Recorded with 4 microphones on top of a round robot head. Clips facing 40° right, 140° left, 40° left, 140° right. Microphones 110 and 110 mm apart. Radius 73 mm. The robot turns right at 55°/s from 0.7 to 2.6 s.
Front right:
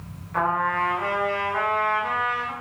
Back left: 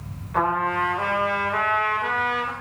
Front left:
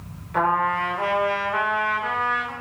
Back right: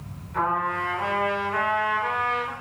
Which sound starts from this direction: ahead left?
A trumpet, at 0.3 s.